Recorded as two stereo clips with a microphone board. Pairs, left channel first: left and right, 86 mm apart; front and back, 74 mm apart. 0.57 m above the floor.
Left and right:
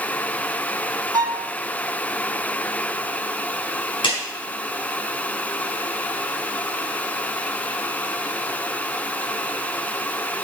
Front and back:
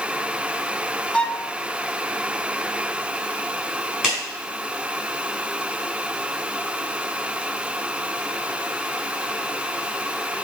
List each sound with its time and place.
1.1 s a violin: 75° right, 0.6 m
4.0 s a clap: 100° left, 4.5 m